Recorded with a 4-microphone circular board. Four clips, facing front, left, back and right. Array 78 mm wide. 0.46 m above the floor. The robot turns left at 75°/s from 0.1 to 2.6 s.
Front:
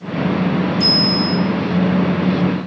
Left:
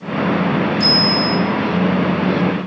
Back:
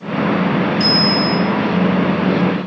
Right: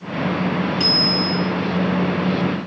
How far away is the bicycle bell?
About 3 m.